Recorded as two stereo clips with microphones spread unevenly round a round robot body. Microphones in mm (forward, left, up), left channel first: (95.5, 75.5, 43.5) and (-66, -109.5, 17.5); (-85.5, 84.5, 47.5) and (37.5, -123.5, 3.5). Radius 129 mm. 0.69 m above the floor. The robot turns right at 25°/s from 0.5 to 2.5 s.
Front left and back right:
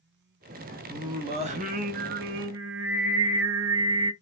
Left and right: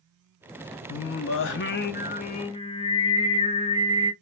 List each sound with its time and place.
0.9 s singing: 150° left, 0.6 m; by 4.1 s 170° right, 0.6 m